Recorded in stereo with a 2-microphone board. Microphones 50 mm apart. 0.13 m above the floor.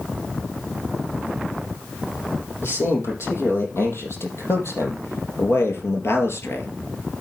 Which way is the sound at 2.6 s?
60° left (ahead or behind).